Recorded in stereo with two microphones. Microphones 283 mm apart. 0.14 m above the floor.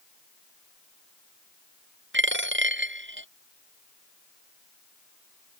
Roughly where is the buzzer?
No buzzer in this recording.